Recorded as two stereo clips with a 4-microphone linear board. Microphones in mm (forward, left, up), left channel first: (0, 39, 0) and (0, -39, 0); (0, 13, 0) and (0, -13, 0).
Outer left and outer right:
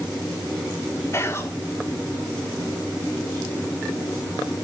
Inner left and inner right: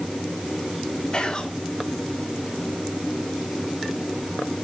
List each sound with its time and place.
1.1 s whispering: 35° left (ahead or behind), 2.5 m